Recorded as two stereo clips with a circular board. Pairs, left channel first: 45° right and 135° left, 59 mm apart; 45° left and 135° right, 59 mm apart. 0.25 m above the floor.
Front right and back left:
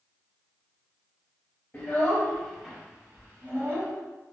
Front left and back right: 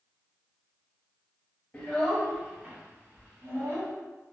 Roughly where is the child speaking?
Ahead.